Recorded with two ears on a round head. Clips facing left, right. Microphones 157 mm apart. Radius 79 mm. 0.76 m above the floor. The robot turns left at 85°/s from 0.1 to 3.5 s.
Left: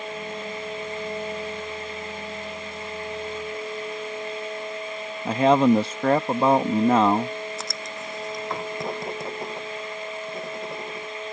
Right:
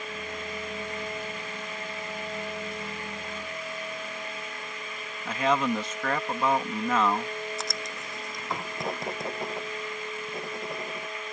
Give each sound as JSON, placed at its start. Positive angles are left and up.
{"t": 5.2, "sound": "a man speaking", "side_deg": 25}
{"t": 7.6, "sound": "writing", "side_deg": 0}